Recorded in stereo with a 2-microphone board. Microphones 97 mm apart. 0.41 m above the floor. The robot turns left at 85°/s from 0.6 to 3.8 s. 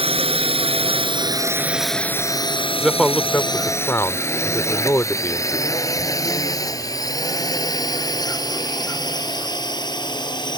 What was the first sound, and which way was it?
A drone, 75° right (ahead or behind).